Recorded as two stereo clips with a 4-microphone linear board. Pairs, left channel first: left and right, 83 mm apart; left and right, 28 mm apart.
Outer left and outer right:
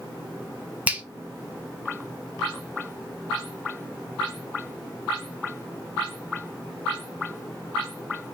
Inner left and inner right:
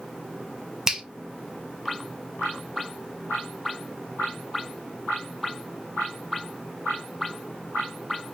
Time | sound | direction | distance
0.9 | a finger snap | 15° right (ahead or behind) | 0.6 m